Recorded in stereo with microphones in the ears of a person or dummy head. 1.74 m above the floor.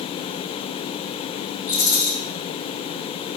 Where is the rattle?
35° left (ahead or behind), 0.7 m.